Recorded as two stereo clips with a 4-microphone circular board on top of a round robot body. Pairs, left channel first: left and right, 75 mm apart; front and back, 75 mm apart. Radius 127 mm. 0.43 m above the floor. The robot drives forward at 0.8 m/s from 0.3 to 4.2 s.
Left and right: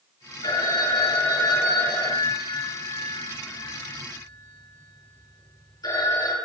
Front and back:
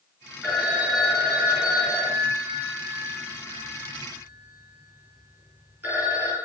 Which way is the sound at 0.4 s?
95° left.